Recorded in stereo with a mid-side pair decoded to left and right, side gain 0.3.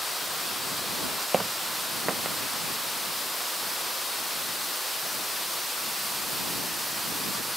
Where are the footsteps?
40° right; by 2.4 s 45° right.